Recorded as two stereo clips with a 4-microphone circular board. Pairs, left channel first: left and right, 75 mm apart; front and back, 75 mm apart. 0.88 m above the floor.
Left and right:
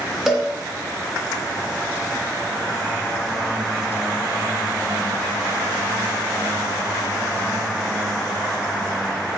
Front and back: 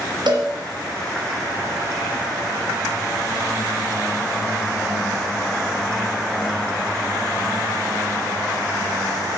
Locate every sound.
0.3 s a cowbell: 175° right, 3 m